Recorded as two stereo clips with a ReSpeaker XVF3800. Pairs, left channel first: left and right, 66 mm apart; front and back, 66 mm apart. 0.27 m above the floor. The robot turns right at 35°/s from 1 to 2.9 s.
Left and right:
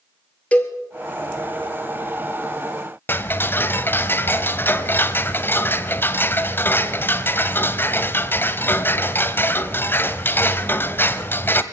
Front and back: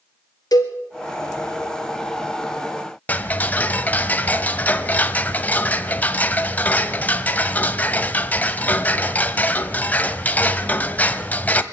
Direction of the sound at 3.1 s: 55° left.